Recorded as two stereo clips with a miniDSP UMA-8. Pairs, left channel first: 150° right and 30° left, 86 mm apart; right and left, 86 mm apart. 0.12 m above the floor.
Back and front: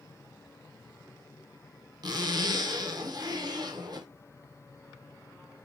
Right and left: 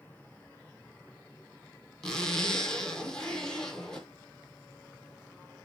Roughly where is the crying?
No crying in this recording.